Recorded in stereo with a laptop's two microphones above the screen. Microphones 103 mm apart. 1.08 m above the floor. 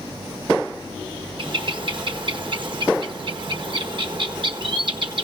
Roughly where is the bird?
Right.